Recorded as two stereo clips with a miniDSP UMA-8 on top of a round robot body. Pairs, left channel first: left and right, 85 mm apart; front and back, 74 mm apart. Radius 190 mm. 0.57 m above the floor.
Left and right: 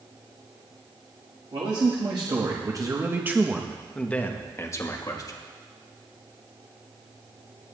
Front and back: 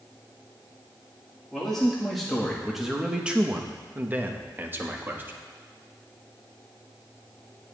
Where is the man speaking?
85° right, 1.8 m; by 5.4 s 120° left, 1.7 m.